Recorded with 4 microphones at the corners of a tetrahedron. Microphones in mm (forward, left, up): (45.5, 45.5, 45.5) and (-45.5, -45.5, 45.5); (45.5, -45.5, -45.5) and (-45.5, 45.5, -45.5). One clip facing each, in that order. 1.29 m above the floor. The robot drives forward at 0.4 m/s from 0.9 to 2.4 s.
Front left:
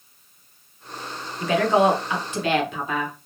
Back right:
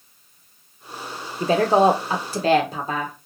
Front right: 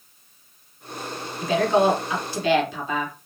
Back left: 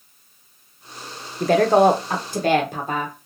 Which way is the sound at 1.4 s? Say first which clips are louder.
Back right 2 dB, back left 5 dB; 170° left.